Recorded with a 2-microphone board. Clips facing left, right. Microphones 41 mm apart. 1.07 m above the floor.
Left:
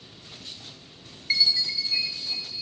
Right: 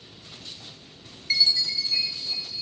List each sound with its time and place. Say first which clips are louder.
1.3 s a chime: even; 10° left (ahead or behind), 0.6 m